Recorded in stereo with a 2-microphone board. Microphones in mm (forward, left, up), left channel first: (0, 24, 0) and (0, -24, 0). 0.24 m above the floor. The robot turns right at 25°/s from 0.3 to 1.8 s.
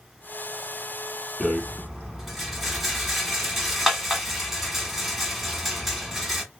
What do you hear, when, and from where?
1.4 s a rattle: 5° left (ahead or behind), 1.1 m; by 6.4 s 5° right (ahead or behind), 1.1 m